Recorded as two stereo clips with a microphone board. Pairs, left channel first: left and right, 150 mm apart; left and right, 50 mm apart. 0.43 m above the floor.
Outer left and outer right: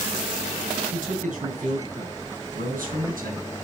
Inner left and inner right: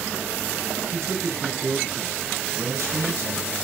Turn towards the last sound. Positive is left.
turn(degrees=-70)  # may be behind; listen again after turning